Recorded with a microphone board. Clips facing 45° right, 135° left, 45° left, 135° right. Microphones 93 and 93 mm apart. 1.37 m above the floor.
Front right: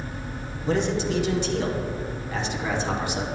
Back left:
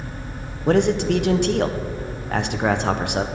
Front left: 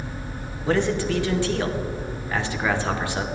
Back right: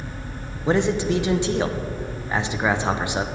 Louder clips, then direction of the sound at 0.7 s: Back left 6 dB, back right 2 dB; 155° left.